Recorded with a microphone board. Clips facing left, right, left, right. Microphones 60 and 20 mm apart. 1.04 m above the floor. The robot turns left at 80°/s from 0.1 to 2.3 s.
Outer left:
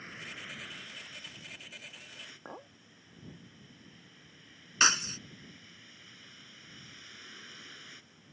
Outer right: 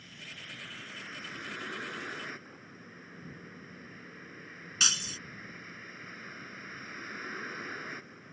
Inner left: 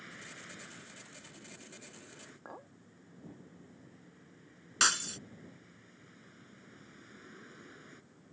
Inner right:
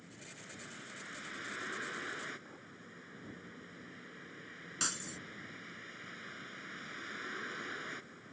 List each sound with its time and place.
0.0 s a vehicle: 45° left; by 8.3 s 135° right
2.5 s a clink: 65° left (ahead or behind)
4.8 s breaking glass: 40° left (ahead or behind)